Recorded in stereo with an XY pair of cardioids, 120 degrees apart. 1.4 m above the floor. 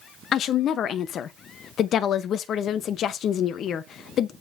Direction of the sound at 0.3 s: 60° left.